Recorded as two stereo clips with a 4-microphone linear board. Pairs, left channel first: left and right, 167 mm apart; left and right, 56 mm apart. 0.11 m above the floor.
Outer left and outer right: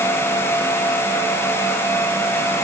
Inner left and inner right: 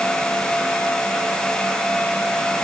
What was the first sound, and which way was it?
Only background noise.